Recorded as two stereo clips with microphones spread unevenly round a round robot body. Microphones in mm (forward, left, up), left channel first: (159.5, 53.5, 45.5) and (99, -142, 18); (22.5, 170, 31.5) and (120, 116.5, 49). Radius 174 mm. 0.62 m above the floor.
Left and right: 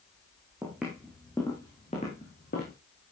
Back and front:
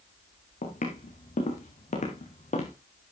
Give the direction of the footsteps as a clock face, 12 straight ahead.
6 o'clock.